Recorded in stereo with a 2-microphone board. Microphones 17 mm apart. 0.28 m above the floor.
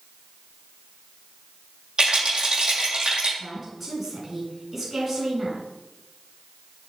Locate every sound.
2.0 s a rattle: 45° right (ahead or behind), 4.5 m
3.4 s a woman speaking: 15° right (ahead or behind), 3.5 m